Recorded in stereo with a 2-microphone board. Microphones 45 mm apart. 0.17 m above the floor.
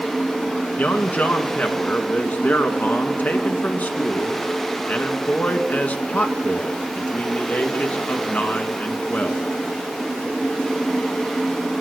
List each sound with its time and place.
0.8 s a man speaking: 35° left (ahead or behind), 2 m